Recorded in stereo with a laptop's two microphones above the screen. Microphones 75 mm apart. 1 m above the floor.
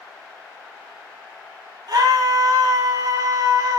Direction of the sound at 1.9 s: 60° right (ahead or behind).